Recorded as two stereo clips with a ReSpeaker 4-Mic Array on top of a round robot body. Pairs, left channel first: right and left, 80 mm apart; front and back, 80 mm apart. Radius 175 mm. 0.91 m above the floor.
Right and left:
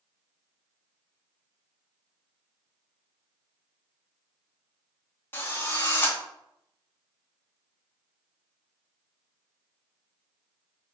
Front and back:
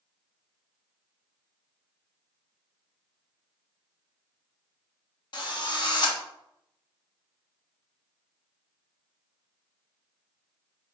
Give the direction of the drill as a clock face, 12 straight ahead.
1 o'clock.